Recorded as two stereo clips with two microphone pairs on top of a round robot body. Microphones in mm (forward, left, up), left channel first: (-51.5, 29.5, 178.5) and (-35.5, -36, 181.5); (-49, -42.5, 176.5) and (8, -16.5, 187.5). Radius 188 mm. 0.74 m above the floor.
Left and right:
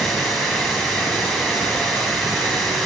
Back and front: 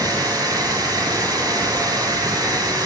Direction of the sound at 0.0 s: 20° left.